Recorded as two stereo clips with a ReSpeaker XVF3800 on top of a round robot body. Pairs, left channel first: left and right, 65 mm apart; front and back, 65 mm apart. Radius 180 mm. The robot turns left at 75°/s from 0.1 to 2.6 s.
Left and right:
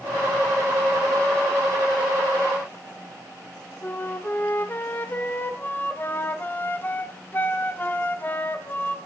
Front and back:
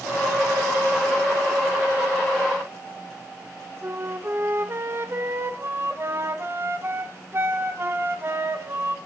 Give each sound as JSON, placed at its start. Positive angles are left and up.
{"t": 3.8, "sound": "a flute", "azimuth_deg": 140, "distance_m": 1.5}